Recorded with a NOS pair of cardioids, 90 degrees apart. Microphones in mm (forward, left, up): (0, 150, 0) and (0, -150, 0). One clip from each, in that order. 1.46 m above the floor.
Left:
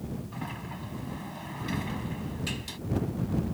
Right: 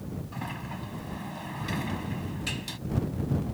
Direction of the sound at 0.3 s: 15° right.